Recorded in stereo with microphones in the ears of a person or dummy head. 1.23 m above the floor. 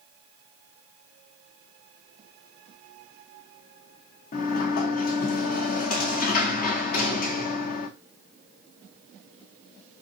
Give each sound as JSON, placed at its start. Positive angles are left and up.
{"t": 4.3, "sound": "a sliding door", "side_deg": 45, "distance_m": 0.7}